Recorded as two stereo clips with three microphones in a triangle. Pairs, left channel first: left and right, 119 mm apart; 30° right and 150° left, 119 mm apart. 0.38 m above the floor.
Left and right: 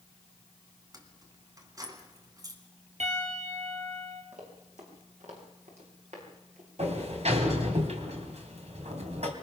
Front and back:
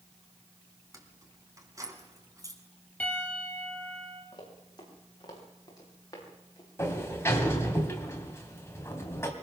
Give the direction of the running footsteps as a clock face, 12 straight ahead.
3 o'clock.